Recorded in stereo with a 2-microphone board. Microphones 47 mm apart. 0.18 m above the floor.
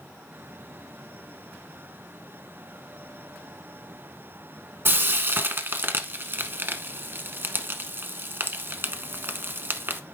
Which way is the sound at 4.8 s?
50° right (ahead or behind).